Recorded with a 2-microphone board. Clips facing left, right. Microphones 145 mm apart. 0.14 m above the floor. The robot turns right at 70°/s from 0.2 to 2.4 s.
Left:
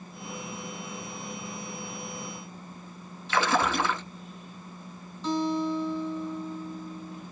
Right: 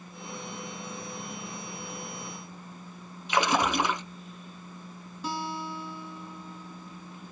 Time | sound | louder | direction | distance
3.3 | a splash | even | 15° right (ahead or behind) | 0.7 m
5.2 | a guitar | left 8 dB | 10° right (ahead or behind) | 1.4 m